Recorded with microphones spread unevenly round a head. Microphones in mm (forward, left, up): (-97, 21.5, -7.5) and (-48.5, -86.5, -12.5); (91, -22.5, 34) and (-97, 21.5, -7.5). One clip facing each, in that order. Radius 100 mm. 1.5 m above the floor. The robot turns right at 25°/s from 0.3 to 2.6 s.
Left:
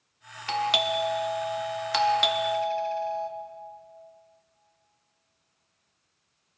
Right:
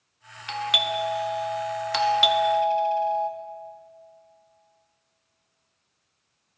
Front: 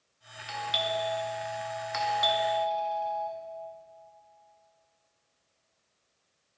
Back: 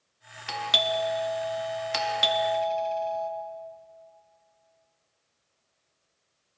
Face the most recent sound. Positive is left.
turn(degrees=-140)